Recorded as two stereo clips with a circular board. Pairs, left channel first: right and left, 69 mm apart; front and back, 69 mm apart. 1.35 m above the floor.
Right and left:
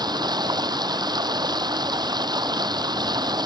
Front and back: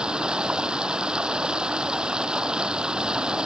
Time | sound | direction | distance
0.0 | running water | 100° left | ?